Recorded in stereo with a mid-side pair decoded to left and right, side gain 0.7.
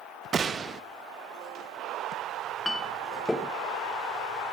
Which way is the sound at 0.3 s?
35° right.